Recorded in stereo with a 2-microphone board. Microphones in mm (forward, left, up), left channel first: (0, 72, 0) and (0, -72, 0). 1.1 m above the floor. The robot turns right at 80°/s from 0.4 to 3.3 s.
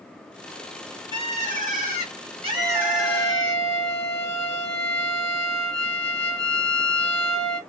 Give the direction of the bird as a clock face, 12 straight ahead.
5 o'clock.